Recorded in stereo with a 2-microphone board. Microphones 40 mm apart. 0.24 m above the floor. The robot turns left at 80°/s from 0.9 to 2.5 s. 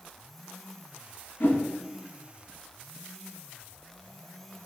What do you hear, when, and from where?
1.4 s a whoosh: 60° left (ahead or behind), 1.1 m